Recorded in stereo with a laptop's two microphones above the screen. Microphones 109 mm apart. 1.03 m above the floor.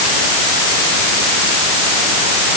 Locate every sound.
Only background noise.